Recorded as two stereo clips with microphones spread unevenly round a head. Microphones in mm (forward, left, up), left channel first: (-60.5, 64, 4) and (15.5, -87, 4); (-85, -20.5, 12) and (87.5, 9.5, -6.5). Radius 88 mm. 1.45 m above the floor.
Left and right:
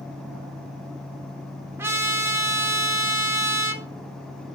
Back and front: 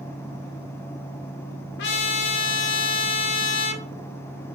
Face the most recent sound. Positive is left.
turn(degrees=-140)